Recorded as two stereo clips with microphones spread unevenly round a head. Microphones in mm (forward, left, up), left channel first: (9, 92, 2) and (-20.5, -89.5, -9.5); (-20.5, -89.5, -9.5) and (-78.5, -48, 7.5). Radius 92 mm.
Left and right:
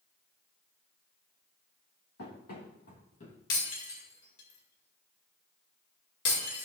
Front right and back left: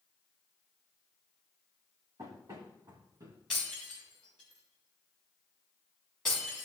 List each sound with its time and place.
2.2 s running footsteps: 100° left, 3.5 m; by 3.4 s 120° left, 3 m
3.5 s breaking glass: 55° left, 4 m